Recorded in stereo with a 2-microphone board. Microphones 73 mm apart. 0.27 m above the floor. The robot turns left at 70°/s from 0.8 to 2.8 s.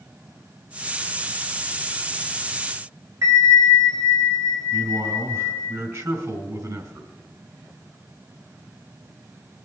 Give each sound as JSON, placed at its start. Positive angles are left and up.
{"t": 3.2, "sound": "a bell", "side_deg": -50, "distance_m": 2.0}
{"t": 4.7, "sound": "a man speaking", "side_deg": -50, "distance_m": 3.0}